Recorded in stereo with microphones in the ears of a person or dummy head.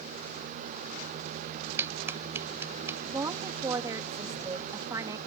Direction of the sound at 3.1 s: 20° right (ahead or behind).